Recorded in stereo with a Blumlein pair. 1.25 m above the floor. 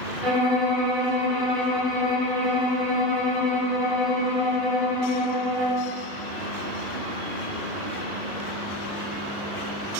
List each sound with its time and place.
0.2 s a violin: 20° right, 0.9 m